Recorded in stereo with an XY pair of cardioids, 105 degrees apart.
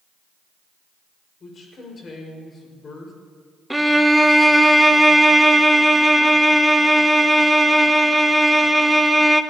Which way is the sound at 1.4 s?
45° left.